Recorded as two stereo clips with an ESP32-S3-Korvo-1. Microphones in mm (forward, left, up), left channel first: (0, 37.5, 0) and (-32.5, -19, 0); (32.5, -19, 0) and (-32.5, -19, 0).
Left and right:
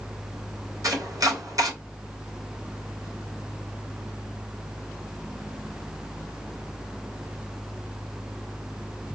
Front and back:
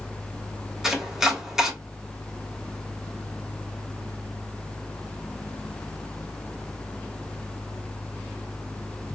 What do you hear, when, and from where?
0.8 s chopping: 95° right, 1.1 m